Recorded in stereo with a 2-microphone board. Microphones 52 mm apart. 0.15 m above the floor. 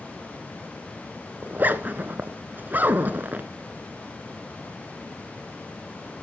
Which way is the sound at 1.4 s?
35° right (ahead or behind).